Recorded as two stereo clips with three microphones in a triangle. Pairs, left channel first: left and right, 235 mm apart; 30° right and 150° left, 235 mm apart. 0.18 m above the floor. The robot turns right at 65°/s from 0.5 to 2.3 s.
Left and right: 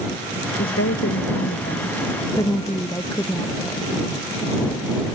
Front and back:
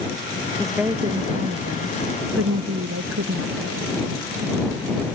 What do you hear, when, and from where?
0.6 s a woman speaking: 55° left; by 3.9 s 165° left